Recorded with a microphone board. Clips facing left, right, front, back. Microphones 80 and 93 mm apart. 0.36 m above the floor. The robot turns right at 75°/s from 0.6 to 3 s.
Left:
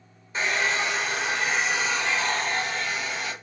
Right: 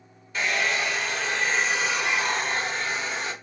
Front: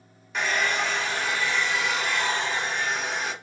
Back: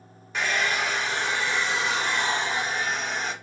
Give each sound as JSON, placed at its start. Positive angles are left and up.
{"t": 0.3, "sound": "a hair dryer", "azimuth_deg": 90, "distance_m": 1.4}